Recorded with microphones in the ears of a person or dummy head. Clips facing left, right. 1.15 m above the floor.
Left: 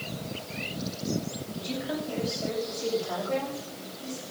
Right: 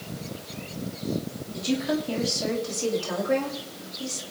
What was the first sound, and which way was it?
A woman speaking, 85° right.